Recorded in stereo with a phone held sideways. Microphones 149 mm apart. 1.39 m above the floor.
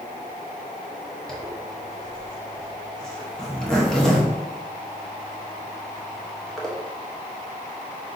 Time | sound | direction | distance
1.3 | a zipper | 5° left (ahead or behind) | 0.9 m